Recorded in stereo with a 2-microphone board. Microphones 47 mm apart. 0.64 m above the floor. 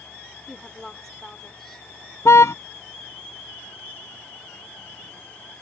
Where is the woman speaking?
10° left (ahead or behind).